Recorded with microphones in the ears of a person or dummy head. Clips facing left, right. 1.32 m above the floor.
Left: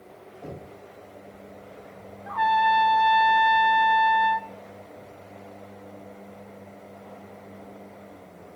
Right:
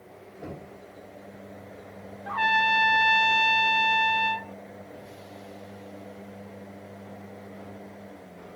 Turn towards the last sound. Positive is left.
turn(degrees=-35)  # may be behind; listen again after turning